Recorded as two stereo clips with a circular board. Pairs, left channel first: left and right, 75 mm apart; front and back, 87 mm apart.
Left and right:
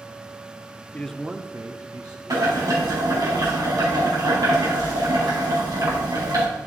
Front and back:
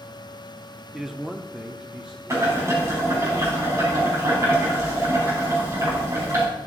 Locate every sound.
0.9 s a man speaking: 100° left, 0.7 m; by 3.3 s 100° right, 2.5 m
2.3 s boiling: 125° right, 4.5 m